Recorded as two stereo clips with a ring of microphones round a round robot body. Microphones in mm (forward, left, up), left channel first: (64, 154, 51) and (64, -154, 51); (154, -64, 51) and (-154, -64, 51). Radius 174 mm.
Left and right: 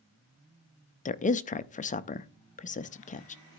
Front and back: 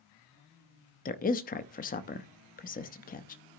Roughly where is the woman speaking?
Ahead left.